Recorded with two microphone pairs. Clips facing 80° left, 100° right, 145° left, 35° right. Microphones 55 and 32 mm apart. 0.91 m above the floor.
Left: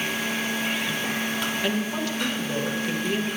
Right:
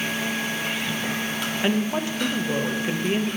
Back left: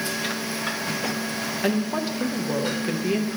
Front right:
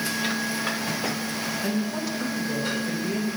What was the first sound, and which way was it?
A woman speaking, 165° right.